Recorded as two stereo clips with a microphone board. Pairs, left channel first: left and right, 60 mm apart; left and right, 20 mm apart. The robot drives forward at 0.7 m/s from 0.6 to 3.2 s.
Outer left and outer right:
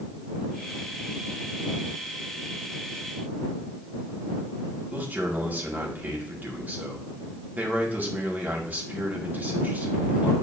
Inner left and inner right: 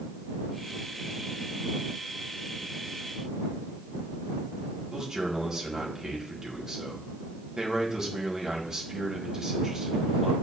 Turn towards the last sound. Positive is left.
turn(degrees=-30)  # may be behind; listen again after turning